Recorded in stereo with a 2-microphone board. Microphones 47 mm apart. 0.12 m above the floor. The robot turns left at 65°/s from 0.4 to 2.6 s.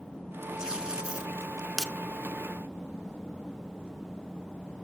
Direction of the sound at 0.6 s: 20° right (ahead or behind).